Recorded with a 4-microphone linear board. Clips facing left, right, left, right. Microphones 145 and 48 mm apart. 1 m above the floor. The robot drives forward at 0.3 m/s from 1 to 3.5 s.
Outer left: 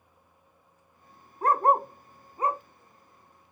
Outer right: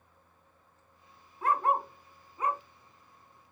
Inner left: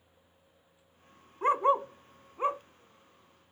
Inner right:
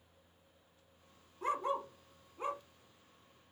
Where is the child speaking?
I don't hear a child speaking.